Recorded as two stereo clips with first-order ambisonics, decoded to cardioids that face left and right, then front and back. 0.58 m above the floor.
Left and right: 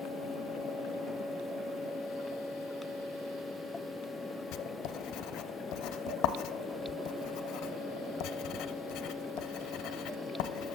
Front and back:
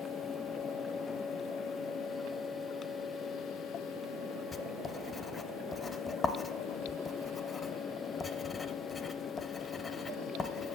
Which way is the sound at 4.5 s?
70° left.